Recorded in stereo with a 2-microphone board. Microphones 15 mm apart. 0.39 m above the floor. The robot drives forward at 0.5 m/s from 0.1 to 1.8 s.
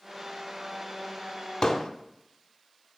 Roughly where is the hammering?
Left.